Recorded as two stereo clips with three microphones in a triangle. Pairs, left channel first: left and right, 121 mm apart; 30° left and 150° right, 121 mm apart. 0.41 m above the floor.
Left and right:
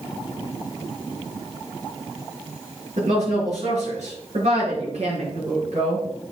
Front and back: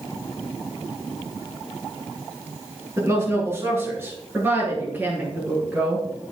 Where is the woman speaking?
85° right, 5.5 m; by 6.2 s 75° right, 7 m.